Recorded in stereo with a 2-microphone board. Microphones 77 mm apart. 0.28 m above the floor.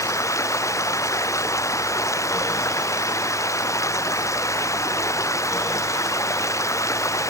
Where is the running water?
40° left (ahead or behind).